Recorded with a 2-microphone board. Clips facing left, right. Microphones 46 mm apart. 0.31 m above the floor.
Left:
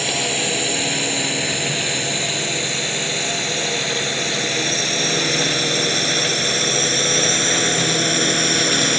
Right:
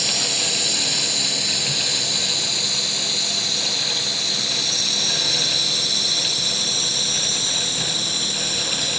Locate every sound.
0.0 s a drone: 30° left (ahead or behind); by 9.0 s 55° left (ahead or behind)